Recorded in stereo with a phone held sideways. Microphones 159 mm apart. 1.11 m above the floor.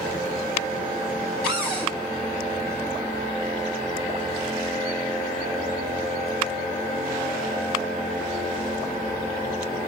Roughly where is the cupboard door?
Centre.